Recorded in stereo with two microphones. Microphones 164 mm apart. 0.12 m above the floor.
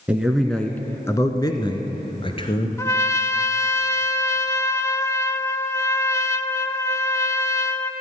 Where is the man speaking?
5° right (ahead or behind), 1.1 m; by 2.7 s 35° left (ahead or behind), 1.8 m.